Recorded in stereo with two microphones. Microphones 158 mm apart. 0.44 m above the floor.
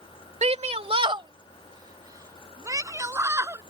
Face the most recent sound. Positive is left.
turn(degrees=-15)  # may be behind; listen again after turning